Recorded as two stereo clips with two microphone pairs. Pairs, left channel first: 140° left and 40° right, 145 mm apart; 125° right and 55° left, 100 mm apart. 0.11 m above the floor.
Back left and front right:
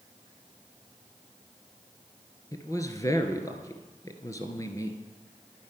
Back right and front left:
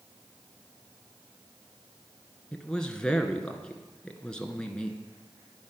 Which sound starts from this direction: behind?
A man speaking, at 2.5 s.